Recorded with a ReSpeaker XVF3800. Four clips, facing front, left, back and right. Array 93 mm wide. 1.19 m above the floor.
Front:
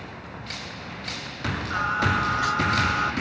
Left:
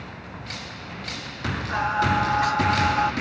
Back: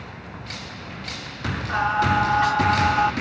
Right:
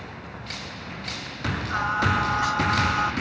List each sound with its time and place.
1.7 s singing: 135° left, 2.5 m